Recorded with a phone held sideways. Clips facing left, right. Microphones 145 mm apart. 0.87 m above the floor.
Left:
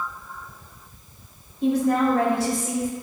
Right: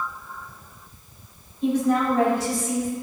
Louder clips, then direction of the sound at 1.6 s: Left 1 dB; 75° left (ahead or behind).